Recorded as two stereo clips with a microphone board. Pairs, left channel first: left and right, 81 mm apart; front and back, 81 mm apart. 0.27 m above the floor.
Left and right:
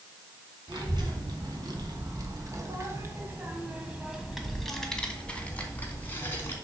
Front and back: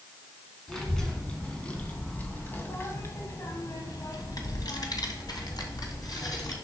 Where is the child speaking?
85° right, 2.5 m; by 6.5 s 30° left, 2.5 m.